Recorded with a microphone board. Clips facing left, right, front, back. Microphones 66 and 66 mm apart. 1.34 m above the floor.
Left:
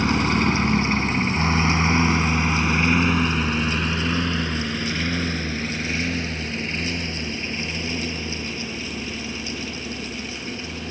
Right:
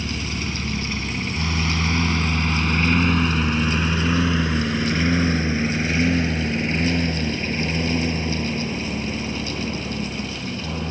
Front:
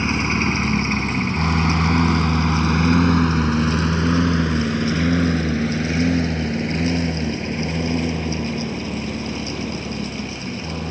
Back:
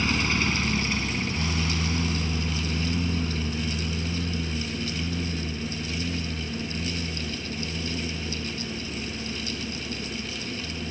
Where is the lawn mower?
65° left; by 10.9 s 35° right.